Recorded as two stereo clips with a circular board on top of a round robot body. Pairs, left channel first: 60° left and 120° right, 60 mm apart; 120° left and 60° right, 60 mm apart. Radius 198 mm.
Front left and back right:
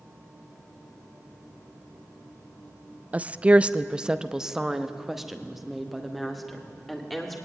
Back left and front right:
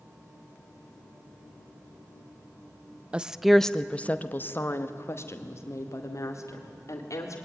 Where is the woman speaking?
100° right, 0.8 m; by 7.4 s 150° left, 3 m.